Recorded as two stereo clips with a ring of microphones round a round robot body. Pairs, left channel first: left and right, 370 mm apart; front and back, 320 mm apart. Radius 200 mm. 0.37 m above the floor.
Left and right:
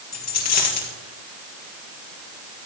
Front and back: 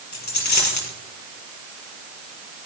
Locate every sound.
0.1 s a dropped coin: 40° left, 4 m